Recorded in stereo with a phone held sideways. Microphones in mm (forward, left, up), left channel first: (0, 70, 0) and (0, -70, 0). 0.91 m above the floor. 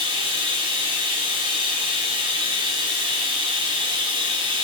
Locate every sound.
0.0 s running water: 35° right (ahead or behind), 1.5 m